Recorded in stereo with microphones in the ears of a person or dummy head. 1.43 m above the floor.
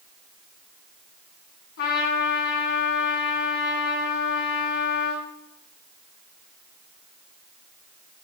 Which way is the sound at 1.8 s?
55° left (ahead or behind).